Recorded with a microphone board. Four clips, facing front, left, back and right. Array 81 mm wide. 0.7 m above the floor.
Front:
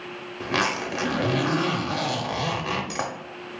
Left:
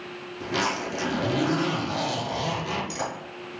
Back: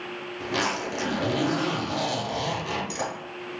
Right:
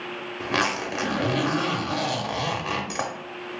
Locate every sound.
0.4 s a zipper: 50° right, 0.6 m